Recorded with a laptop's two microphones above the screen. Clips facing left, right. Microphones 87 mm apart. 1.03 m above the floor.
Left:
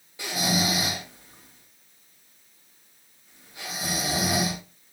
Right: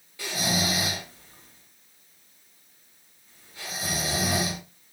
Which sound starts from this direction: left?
Snoring, at 0.2 s.